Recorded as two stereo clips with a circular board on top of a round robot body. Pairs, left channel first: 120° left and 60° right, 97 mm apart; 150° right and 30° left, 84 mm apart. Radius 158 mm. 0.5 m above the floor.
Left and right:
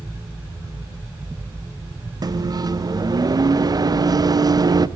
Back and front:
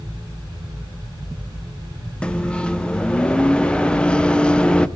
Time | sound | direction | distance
2.2 | a microwave | 75° right | 1.1 m